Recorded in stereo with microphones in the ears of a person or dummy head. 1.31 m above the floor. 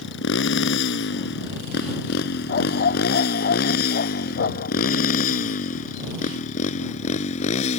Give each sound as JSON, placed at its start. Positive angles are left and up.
{"t": 0.0, "sound": "a motorcycle", "side_deg": 80}
{"t": 2.5, "sound": "a dog barking", "side_deg": 60}